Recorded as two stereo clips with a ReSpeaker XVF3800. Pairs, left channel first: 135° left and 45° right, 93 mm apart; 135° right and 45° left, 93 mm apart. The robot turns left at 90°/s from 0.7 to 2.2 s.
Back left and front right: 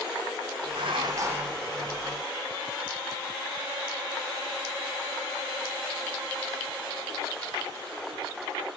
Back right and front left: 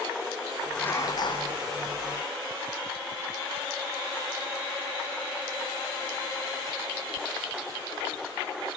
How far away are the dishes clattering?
About 4 m.